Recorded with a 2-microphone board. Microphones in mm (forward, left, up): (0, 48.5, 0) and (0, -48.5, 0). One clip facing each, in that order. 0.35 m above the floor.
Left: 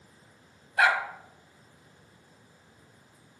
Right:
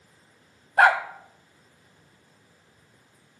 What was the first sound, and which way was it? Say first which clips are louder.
A dog barking: right 6 dB; 50° right (ahead or behind).